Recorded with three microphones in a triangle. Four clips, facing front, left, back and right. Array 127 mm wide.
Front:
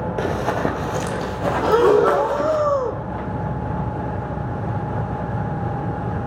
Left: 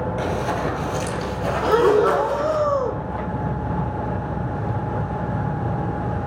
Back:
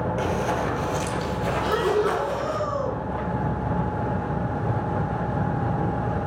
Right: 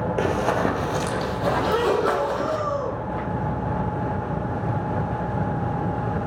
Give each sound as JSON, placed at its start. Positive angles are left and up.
{"t": 0.2, "sound": "running footsteps", "azimuth_deg": -40, "distance_m": 2.5}
{"t": 1.6, "sound": "breathing", "azimuth_deg": 25, "distance_m": 0.8}